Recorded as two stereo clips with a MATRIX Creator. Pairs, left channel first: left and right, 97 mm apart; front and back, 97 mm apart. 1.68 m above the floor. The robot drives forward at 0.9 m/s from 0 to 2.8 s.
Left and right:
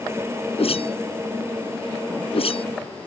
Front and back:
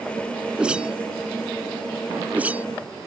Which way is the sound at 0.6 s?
100° left.